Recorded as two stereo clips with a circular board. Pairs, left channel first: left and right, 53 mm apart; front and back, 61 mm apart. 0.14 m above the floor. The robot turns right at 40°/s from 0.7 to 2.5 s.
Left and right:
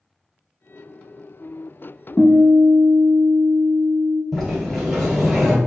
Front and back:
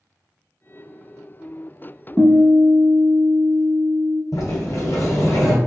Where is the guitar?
140° left, 0.8 m; by 4.2 s 155° left, 0.8 m.